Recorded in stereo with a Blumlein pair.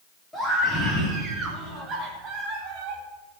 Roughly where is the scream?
Ahead.